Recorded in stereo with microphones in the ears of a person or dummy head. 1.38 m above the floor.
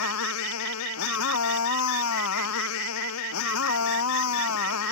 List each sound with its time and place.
0.0 s a motorcycle: 80° left